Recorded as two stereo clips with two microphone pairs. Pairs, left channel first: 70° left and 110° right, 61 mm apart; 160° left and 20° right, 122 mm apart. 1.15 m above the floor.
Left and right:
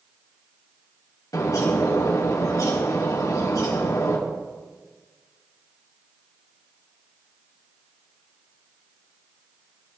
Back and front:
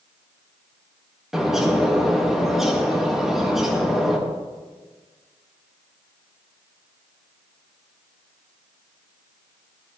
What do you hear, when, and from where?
1.3 s a bird: 65° left, 2 m